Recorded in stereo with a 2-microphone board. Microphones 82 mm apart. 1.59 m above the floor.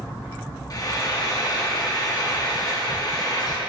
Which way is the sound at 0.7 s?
45° left (ahead or behind).